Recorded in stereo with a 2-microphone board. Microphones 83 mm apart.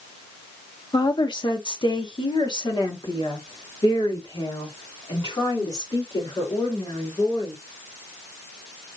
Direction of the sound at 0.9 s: 60° left (ahead or behind).